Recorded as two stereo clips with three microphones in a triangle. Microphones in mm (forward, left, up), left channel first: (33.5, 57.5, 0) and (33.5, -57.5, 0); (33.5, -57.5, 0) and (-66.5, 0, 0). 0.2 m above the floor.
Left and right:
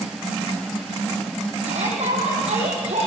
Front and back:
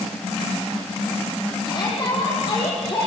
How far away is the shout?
About 8.5 m.